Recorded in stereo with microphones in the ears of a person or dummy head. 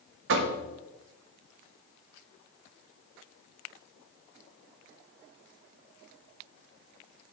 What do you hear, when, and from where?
0.3 s knocking: 65° right (ahead or behind), 1.1 m